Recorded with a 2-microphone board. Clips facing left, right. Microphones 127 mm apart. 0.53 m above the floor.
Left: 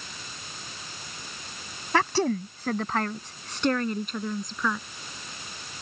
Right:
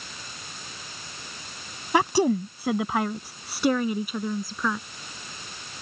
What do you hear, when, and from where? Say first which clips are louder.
1.9 s a woman speaking: right 3 dB; 15° right (ahead or behind); by 4.8 s 5° right (ahead or behind)